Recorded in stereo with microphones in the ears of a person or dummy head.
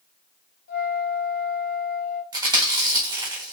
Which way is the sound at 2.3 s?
25° right (ahead or behind).